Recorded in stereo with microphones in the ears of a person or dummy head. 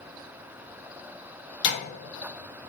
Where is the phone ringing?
No phone ringing in this recording.